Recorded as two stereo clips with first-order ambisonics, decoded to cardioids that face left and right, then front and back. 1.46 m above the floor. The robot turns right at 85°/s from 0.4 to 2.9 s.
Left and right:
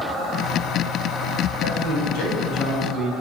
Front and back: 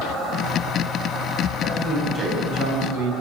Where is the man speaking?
60° left, 8.5 m; by 3.1 s 170° left, 8.5 m.